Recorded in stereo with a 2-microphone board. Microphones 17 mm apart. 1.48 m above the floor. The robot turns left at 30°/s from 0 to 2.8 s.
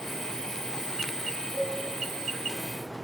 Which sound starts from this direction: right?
A cowbell, at 1.5 s.